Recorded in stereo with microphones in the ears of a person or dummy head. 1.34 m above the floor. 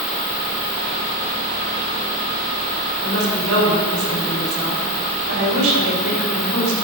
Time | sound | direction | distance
3.0 | a woman speaking | 80° right | 3 m